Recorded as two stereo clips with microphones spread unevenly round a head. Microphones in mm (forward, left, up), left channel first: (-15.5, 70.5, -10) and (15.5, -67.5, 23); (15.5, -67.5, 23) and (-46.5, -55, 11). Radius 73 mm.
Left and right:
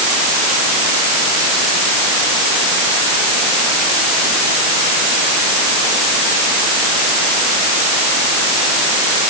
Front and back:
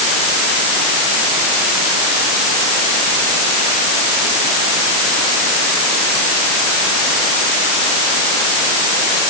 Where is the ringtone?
No ringtone in this recording.